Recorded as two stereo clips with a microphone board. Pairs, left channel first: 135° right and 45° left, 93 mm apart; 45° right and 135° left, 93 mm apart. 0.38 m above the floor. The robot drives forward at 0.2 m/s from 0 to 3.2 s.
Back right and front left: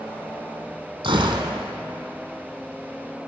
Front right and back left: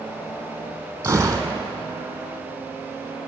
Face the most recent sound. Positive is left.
turn(degrees=95)